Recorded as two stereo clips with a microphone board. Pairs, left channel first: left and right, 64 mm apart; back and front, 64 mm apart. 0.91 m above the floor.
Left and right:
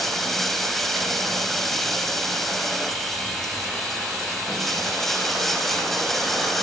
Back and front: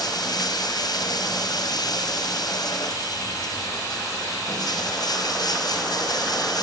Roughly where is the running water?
Behind.